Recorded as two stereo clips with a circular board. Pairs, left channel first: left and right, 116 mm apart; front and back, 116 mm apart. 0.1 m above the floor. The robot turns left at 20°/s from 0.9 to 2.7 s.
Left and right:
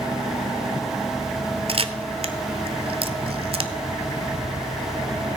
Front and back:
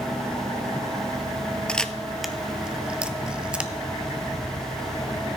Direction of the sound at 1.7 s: 80° right.